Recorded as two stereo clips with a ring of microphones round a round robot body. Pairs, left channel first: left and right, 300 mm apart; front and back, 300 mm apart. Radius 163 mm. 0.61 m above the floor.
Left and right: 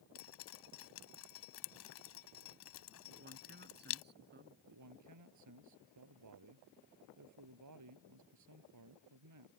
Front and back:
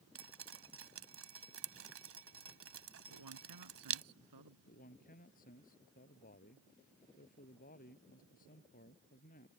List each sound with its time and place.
0.1 s dripping: 140° left
3.1 s a man speaking: 150° right
4.7 s a man speaking: 65° right